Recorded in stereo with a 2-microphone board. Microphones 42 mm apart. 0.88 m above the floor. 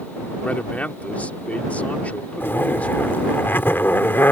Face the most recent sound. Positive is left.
turn(degrees=60)  # may be behind; listen again after turning